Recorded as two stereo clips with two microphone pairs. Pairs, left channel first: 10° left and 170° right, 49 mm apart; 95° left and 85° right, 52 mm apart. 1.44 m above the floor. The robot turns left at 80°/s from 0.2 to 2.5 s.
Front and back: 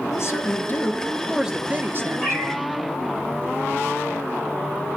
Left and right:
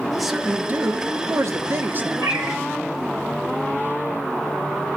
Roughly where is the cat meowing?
Right.